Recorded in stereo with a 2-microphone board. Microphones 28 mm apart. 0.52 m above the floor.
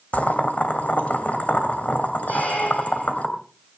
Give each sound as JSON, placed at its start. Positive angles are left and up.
{"t": 0.1, "sound": "boiling", "side_deg": 65, "distance_m": 2.5}
{"t": 2.3, "sound": "a squeak", "side_deg": 85, "distance_m": 8.5}